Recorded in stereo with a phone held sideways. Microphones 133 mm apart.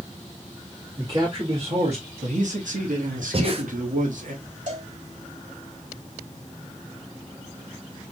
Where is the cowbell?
65° right (ahead or behind), 2.5 m.